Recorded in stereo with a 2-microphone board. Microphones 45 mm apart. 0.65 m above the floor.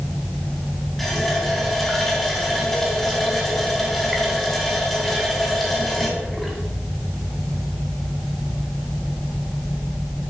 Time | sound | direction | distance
1.0 | a running tap | 5° left (ahead or behind) | 3.5 m